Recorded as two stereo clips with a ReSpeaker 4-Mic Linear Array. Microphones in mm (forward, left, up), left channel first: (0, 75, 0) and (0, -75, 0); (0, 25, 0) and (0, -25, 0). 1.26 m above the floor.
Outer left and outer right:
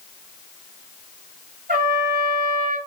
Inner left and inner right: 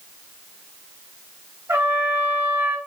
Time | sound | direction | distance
1.7 | a trumpet | 70° right (ahead or behind) | 2.5 m